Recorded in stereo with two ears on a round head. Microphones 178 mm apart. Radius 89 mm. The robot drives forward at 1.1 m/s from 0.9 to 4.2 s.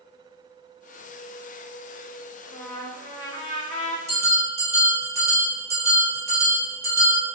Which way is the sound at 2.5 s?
15° left (ahead or behind).